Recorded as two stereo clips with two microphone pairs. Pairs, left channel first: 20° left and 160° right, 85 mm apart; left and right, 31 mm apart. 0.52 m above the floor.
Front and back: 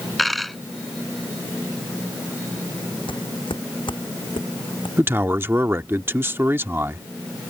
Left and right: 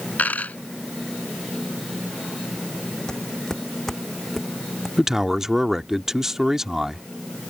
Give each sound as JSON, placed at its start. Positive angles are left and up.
{"t": 0.2, "sound": "a dropped coin", "azimuth_deg": 110}
{"t": 3.1, "sound": "footsteps", "azimuth_deg": 20}
{"t": 5.0, "sound": "a man speaking", "azimuth_deg": -145}